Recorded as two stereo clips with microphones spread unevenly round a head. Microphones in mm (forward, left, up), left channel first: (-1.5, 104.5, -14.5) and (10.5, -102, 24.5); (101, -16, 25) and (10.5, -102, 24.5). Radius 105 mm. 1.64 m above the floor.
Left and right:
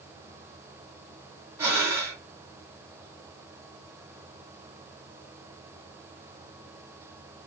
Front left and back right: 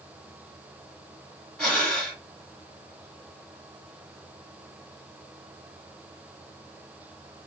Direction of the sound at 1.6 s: 35° right.